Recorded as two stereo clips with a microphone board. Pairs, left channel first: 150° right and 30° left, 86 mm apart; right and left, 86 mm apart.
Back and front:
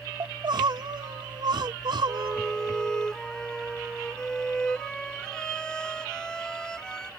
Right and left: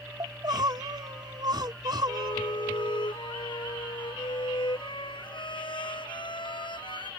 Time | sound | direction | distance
0.2 | crying | 55° left | ?
2.1 | a violin | 70° right | ?